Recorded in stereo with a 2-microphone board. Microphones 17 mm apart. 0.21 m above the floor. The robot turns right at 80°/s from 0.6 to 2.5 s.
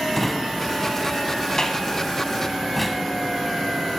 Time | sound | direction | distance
0.1 | a drawer | 10° left (ahead or behind) | 0.6 m